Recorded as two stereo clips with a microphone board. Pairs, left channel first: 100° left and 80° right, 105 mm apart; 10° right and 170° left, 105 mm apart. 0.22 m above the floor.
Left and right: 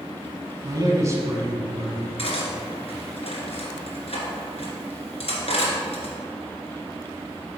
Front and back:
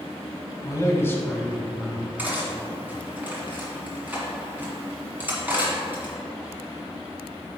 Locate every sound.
0.6 s a man speaking: 45° right, 1.1 m; by 2.1 s 130° right, 1.0 m
2.2 s cutlery clinking: 100° left, 1.5 m